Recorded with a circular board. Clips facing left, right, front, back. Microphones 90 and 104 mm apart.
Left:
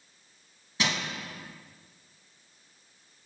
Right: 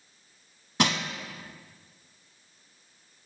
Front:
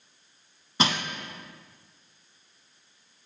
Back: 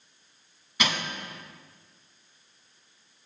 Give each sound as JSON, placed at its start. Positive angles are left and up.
{"t": 0.8, "sound": "crushing", "azimuth_deg": -55, "distance_m": 0.6}